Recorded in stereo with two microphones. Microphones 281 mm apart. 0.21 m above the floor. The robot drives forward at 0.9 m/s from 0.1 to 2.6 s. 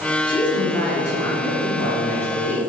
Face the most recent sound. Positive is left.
turn(degrees=5)  # may be behind; listen again after turning